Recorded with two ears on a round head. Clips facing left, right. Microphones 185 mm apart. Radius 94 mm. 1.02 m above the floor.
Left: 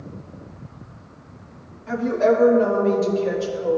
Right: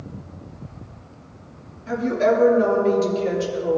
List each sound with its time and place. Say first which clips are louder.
1.9 s a woman speaking: left 1 dB; 30° right (ahead or behind), 2.5 m; by 3.8 s 65° right (ahead or behind), 3 m